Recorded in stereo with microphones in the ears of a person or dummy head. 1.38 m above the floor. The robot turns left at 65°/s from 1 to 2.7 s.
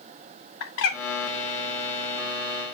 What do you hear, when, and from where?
0.6 s a bird: 75° left (ahead or behind), 2.5 m